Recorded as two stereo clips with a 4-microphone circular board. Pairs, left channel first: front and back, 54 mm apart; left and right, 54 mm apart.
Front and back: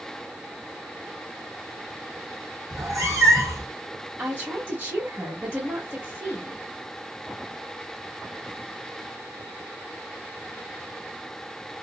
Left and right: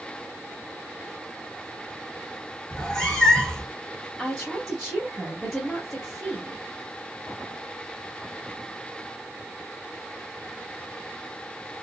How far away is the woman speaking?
About 1.2 m.